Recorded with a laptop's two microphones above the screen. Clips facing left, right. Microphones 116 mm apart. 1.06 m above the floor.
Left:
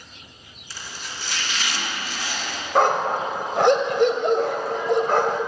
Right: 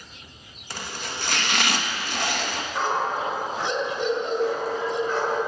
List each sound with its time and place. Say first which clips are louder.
0.7 s chopping: right 4 dB; 60° right (ahead or behind), 1.7 m
2.8 s a dog barking: left 6 dB; 65° left (ahead or behind), 1.8 m